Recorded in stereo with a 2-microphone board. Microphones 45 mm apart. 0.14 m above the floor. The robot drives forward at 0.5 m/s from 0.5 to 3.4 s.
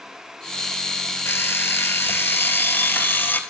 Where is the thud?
No thud in this recording.